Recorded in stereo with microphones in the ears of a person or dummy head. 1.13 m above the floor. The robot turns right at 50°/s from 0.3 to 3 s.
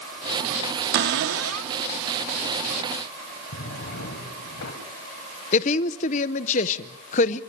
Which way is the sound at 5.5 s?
40° left (ahead or behind).